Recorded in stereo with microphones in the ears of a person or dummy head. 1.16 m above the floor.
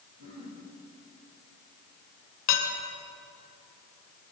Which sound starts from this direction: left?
Dishes clattering, at 2.5 s.